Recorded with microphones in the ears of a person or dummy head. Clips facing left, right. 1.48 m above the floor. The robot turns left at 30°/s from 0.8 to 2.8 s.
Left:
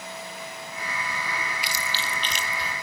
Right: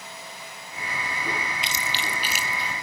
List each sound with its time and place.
1.6 s chewing: 25° right (ahead or behind), 0.9 m; by 2.7 s 5° left (ahead or behind), 0.9 m